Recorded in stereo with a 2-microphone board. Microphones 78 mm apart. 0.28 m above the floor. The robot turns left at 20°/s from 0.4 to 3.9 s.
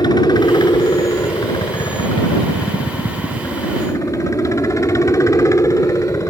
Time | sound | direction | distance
0.0 | a helicopter | 110° left | ?